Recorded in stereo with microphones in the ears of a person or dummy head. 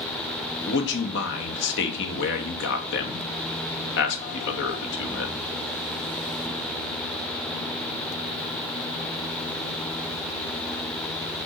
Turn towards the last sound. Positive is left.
turn(degrees=65)  # may be behind; listen again after turning